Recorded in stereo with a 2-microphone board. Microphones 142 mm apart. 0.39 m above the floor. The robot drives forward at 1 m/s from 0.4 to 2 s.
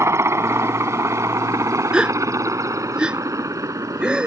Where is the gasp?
5° right (ahead or behind).